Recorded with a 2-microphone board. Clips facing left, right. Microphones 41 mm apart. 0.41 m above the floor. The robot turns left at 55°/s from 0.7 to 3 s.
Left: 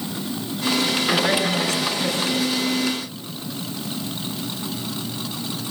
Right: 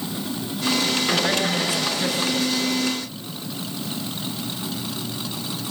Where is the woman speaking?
15° left, 4.5 m; by 2.5 s 60° right, 4.5 m.